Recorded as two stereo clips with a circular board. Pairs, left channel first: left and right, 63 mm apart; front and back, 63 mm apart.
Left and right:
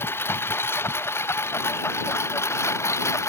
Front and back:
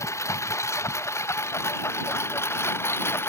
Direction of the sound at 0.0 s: 40° left.